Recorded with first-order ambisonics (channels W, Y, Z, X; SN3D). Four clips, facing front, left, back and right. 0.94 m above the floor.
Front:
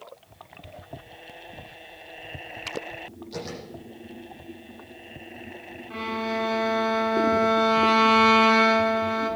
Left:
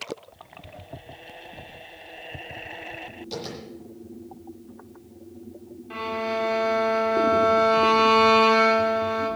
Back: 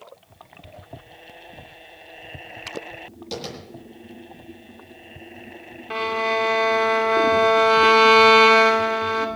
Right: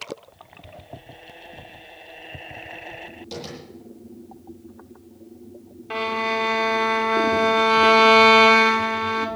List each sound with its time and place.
3.3 s tapping: 170° right, 10 m
5.9 s a violin: 140° right, 2.5 m